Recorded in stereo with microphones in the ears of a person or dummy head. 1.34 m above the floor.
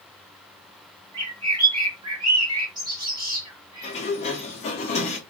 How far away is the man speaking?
No man speaking in this recording.